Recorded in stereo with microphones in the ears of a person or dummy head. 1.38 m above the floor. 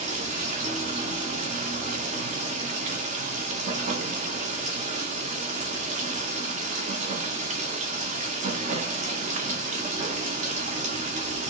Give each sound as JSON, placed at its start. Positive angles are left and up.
{"t": 0.0, "sound": "running water", "side_deg": -35, "distance_m": 0.7}